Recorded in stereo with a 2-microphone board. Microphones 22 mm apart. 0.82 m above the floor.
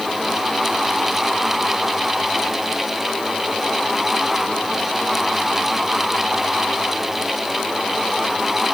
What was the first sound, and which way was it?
Only background noise.